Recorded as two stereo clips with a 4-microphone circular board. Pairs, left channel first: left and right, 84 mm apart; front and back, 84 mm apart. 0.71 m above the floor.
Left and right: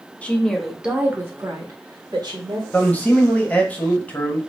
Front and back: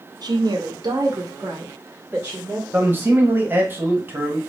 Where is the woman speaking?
160° left, 0.8 m; by 2.6 s 115° right, 1.3 m.